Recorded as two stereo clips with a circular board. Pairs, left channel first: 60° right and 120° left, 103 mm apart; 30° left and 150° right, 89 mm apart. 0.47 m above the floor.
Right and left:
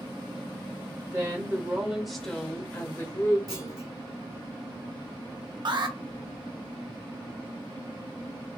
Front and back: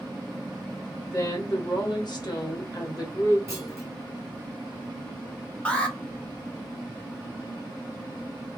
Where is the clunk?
155° left, 1.2 m.